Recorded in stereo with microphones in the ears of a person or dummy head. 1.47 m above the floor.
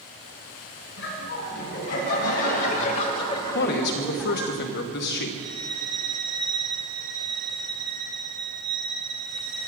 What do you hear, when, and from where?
1.0 s laughter: 70° left (ahead or behind), 4 m; by 4.5 s 20° right (ahead or behind), 1.7 m
3.5 s a man speaking: 60° left (ahead or behind), 1.1 m
5.4 s a violin: 5° left (ahead or behind), 3 m